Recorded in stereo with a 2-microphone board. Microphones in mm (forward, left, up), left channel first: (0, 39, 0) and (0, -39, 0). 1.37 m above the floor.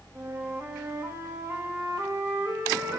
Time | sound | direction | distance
0.1 | a flute | 35° right (ahead or behind) | 1.9 m